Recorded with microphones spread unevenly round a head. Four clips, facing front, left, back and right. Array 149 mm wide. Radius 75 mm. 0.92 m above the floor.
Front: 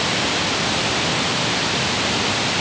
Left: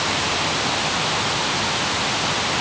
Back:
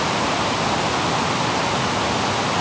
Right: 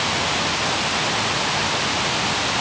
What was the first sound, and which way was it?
Only background noise.